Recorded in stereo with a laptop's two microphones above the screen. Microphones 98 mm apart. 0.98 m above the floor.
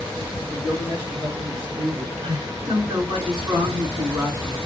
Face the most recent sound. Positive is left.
turn(degrees=-70)  # may be behind; listen again after turning